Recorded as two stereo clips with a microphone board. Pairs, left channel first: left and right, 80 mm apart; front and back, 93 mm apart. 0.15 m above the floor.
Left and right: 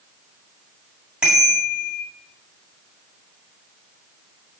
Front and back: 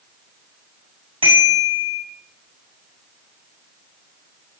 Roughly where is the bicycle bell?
Behind.